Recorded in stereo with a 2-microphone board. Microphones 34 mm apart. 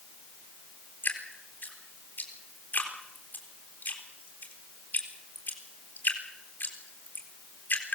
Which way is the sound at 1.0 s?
70° left (ahead or behind).